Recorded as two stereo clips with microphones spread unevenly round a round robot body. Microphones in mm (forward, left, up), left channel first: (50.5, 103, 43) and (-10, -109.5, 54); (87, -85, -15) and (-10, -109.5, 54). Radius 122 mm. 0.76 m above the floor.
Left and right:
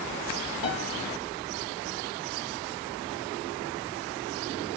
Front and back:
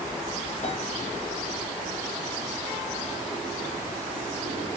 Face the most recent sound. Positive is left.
turn(degrees=75)